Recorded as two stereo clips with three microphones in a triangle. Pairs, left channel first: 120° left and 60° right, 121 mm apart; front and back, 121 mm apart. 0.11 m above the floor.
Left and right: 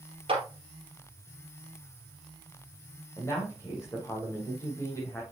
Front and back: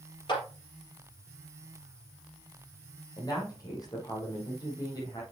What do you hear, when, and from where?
0.3 s a clap: 35° right, 2.5 m
3.2 s a woman speaking: 55° left, 4.5 m